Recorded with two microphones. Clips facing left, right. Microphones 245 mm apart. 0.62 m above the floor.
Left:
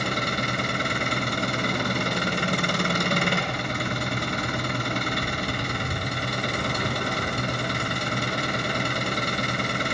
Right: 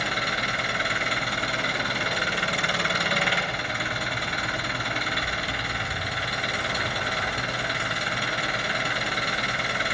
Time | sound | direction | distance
0.0 | an engine running | 45° left (ahead or behind) | 3 m